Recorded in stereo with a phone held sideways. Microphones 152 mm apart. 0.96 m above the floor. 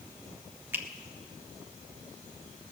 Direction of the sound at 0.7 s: 15° right (ahead or behind).